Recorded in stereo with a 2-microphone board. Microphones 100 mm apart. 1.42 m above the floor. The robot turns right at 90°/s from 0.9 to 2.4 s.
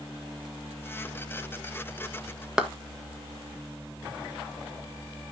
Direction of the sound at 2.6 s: 5° right (ahead or behind).